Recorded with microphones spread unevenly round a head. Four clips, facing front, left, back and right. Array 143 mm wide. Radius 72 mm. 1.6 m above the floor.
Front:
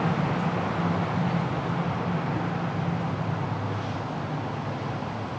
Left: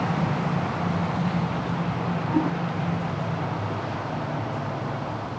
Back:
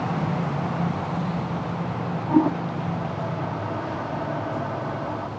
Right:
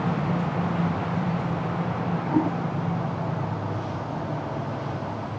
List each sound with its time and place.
2.3 s a toilet flushing: 175° right